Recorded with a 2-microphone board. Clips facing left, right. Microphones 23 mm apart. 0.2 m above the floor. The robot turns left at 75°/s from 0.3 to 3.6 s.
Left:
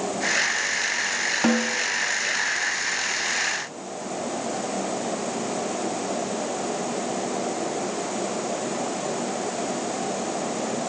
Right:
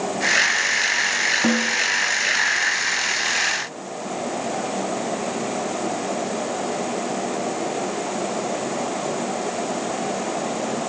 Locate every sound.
1.4 s a snare drum: 20° left (ahead or behind), 1.8 m; by 1.8 s centre (ahead or behind), 1.8 m